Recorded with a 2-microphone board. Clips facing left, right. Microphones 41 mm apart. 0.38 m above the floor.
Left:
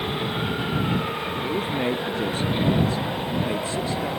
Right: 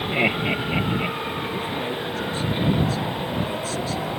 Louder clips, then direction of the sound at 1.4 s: Left 2 dB; 25° left (ahead or behind).